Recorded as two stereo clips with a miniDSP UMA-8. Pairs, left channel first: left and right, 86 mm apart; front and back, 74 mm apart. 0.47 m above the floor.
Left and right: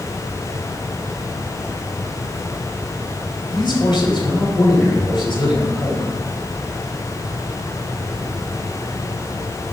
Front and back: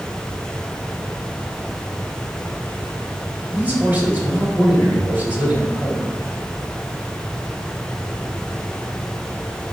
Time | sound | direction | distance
3.5 | a man speaking | 115° left | 3.5 m